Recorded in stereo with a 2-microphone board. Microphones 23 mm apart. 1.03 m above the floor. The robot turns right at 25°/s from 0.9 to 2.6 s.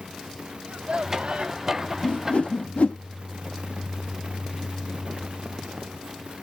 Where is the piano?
I don't hear a piano.